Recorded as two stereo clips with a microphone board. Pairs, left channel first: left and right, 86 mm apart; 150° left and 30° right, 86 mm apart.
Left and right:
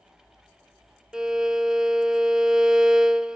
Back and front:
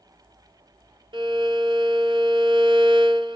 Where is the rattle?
I don't hear a rattle.